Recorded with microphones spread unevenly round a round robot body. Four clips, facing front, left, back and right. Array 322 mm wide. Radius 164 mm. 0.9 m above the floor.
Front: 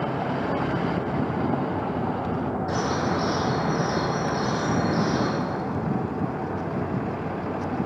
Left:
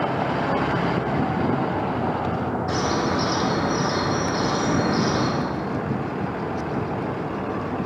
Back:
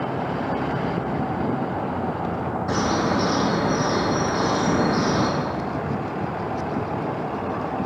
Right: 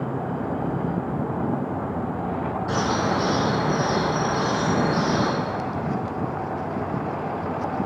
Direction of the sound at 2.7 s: 160° right.